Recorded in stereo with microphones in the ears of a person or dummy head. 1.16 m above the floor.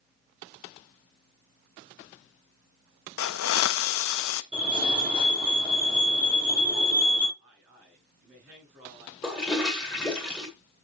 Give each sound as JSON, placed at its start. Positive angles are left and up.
{"t": 3.2, "sound": "a hiss", "side_deg": 70, "distance_m": 0.6}
{"t": 4.5, "sound": "a fire alarm", "side_deg": -30, "distance_m": 6.0}
{"t": 7.4, "sound": "a man speaking", "side_deg": -45, "distance_m": 5.5}
{"t": 9.2, "sound": "a toilet flushing", "side_deg": -5, "distance_m": 1.9}